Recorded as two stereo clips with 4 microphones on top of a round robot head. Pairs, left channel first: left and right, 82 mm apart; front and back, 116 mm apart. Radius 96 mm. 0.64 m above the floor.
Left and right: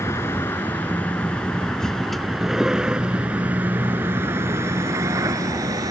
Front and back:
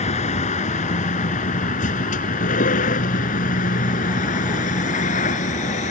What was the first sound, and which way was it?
A vehicle, 20° left.